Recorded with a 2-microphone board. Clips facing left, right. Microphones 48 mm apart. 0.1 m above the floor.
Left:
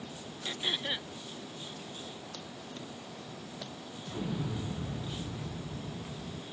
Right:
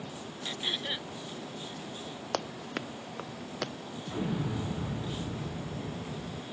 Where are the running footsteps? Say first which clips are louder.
Right 9 dB; 65° right (ahead or behind); by 3.7 s 70° right (ahead or behind).